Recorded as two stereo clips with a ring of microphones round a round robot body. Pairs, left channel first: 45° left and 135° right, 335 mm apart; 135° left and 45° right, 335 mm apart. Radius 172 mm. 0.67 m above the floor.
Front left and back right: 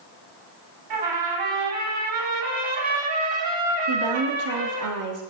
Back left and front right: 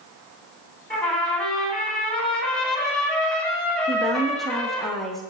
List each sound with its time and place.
0.9 s a trumpet: 135° right, 2.5 m
3.9 s a woman speaking: 135° right, 1.3 m